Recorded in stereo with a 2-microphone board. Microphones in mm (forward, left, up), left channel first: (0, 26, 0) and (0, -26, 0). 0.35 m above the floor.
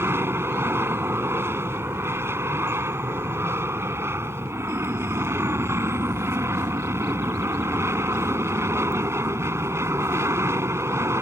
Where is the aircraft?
55° right (ahead or behind); by 11.2 s 65° right (ahead or behind).